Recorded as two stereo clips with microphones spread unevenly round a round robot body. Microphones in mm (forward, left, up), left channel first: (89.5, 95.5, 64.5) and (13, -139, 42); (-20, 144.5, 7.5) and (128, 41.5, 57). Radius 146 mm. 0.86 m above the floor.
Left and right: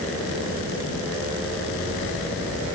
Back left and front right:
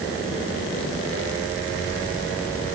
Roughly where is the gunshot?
I don't hear a gunshot.